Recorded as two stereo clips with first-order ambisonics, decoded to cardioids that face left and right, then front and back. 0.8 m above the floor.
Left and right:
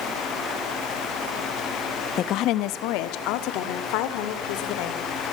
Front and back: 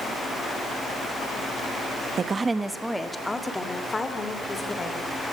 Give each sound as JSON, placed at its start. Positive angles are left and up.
{"t": 2.2, "sound": "a woman speaking", "azimuth_deg": 125, "distance_m": 0.8}